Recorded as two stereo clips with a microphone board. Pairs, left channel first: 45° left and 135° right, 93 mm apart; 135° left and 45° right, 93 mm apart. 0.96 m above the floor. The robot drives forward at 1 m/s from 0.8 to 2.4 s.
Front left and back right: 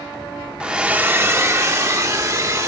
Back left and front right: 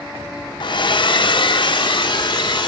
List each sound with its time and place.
0.6 s a hair dryer: 150° left, 0.7 m; by 2.7 s 170° left, 2 m